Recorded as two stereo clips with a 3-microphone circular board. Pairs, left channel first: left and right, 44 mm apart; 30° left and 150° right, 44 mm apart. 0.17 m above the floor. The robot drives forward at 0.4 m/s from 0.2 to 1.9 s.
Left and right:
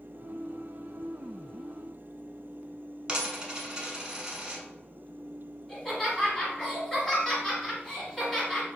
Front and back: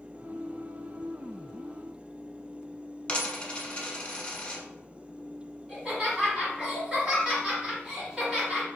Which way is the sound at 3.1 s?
35° right.